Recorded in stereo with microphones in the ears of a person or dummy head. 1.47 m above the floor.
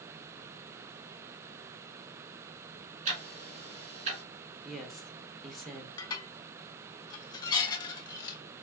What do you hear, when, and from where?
3.0 s ticking: 40° right (ahead or behind), 2.5 m
4.7 s a woman speaking: centre (ahead or behind), 1.4 m
6.0 s dishes clattering: 20° left (ahead or behind), 0.9 m